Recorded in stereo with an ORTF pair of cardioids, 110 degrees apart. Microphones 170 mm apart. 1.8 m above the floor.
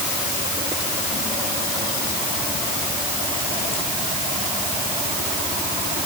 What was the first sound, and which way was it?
Only background noise.